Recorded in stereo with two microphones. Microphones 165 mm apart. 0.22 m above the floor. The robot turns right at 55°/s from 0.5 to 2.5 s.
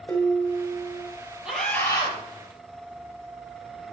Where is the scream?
5° right, 5.5 m; by 2.2 s 35° left, 5.5 m.